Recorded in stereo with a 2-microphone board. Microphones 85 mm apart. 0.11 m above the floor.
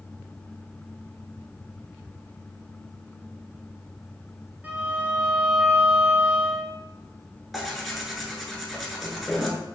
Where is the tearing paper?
5° right (ahead or behind), 0.7 m.